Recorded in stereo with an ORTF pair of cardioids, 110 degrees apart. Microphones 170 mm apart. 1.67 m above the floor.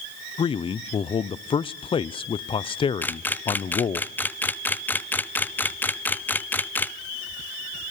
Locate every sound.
0.4 s a man speaking: 30° left, 0.7 m
3.0 s a camera shutter: 10° left, 0.8 m